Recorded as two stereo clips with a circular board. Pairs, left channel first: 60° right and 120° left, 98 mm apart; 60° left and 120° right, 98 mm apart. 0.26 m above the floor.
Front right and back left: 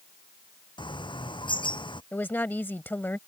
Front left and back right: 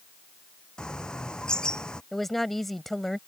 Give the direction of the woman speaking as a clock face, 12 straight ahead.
1 o'clock.